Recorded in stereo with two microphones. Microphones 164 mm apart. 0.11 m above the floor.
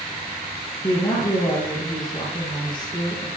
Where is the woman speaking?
30° left (ahead or behind), 2 m.